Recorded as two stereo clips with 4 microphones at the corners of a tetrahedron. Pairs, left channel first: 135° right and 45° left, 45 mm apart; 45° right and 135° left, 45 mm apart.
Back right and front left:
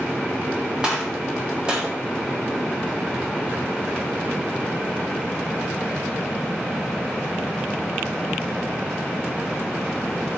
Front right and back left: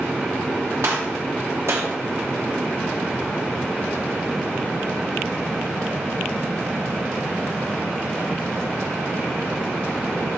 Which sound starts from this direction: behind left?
A gunshot, at 0.8 s.